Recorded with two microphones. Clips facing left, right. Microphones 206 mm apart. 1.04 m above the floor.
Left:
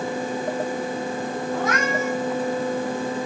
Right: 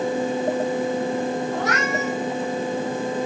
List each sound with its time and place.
1.5 s a cat meowing: 75° right (ahead or behind), 4.5 m